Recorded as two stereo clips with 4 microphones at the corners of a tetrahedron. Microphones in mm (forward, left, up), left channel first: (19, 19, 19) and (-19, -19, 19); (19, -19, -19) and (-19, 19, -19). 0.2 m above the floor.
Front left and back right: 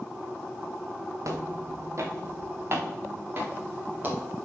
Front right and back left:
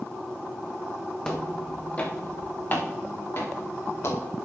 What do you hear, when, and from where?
1.2 s footsteps: 120° right, 2.5 m; by 4.2 s 80° right, 4 m